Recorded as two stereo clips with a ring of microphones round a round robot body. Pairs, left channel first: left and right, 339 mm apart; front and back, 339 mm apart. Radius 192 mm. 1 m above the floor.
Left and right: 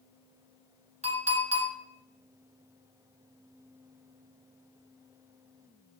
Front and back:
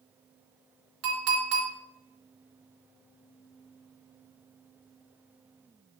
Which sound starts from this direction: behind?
A clink, at 1.0 s.